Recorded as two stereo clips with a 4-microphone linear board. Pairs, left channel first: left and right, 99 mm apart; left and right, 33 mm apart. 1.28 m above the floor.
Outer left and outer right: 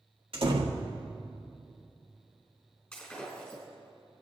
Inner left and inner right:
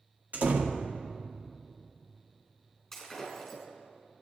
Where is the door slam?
65° right (ahead or behind), 1.7 m.